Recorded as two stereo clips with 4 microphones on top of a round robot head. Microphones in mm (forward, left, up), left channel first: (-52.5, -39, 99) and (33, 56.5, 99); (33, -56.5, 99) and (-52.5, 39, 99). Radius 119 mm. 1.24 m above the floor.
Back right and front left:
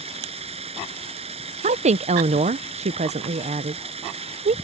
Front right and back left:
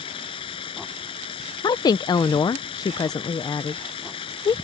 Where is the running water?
5° left.